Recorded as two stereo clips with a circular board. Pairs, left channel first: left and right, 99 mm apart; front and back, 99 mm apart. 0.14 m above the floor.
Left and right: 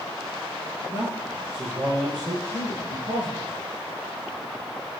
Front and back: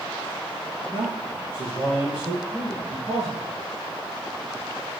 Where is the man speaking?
125° right, 4 m; by 3.5 s 90° right, 5.5 m.